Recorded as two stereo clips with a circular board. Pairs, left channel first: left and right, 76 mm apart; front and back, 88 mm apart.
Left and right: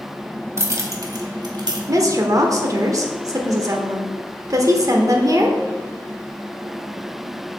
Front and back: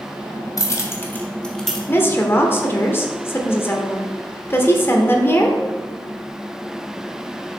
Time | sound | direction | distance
0.6 | keys jangling | 40° right | 1.0 m
1.9 | a woman speaking | 60° right | 1.1 m